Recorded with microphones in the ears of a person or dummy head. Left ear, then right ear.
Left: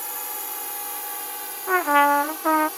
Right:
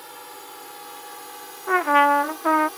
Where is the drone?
25° left (ahead or behind); by 2.8 s 10° left (ahead or behind).